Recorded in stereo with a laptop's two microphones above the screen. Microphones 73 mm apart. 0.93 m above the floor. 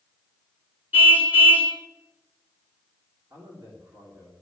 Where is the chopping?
No chopping in this recording.